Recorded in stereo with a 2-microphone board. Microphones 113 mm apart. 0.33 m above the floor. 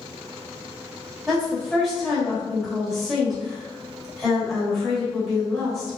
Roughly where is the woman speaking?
Centre.